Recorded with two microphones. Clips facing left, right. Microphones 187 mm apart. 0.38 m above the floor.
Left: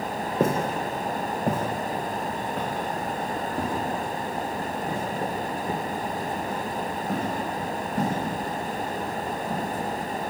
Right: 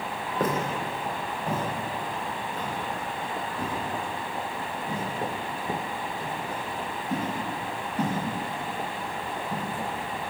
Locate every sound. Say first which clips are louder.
0.4 s footsteps: left 3 dB; 25° left (ahead or behind), 0.7 m; by 9.6 s 85° left, 5 m